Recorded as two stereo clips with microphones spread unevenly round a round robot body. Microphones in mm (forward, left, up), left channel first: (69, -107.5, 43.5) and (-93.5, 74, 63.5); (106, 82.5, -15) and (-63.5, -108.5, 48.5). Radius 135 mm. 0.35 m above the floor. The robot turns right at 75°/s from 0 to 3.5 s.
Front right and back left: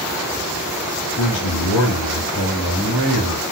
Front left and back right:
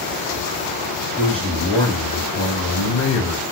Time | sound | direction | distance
1.2 | a man speaking | 75° right | 3.5 m